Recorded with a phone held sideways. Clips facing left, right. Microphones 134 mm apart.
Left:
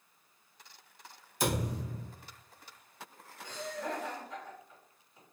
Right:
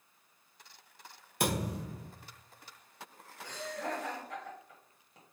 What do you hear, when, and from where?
1.4 s a thud: 60° right (ahead or behind), 1.5 m
3.4 s laughter: 70° right (ahead or behind), 1.7 m